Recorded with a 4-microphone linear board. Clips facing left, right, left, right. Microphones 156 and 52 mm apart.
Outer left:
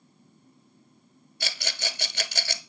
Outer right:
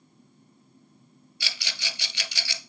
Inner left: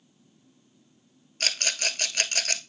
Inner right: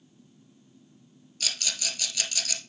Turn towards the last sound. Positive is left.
turn(degrees=50)  # may be behind; listen again after turning